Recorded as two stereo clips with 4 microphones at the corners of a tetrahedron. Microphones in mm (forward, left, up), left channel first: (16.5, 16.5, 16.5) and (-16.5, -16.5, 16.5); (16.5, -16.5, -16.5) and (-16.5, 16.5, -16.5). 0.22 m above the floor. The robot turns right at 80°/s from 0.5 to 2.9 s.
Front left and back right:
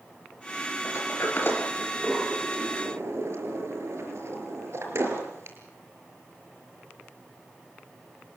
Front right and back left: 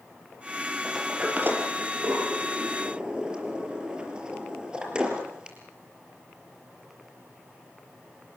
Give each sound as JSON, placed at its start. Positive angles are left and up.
{"t": 0.8, "sound": "a sliding door", "azimuth_deg": 40, "distance_m": 5.0}